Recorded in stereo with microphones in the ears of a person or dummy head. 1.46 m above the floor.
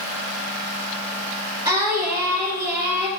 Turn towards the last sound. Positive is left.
turn(degrees=-25)  # may be behind; listen again after turning